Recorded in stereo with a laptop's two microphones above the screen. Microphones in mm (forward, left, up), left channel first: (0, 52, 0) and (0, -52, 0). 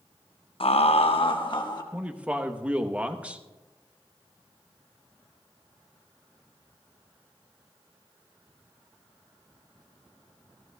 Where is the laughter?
65° left (ahead or behind), 0.6 m; by 1.8 s 45° left (ahead or behind), 1.4 m.